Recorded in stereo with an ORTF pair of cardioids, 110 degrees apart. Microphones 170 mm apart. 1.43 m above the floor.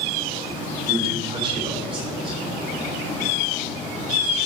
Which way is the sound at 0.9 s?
30° right.